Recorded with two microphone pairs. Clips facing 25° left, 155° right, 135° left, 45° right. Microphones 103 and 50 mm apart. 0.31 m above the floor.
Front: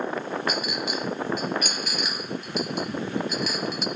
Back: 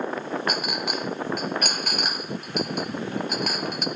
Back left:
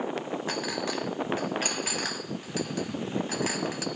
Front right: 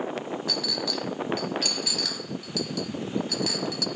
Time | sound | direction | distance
0.5 | a clink | 175° right | 1.0 m